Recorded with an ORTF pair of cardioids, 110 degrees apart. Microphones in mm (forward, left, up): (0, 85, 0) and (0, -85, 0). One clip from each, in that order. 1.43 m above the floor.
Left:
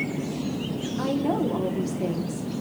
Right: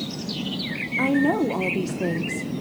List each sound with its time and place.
1.0 s a woman speaking: 25° right, 0.8 m